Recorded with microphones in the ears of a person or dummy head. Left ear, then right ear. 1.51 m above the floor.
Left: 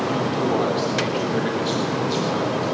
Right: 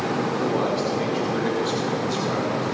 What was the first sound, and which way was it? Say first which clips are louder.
A man speaking: left 3 dB; 20° left (ahead or behind).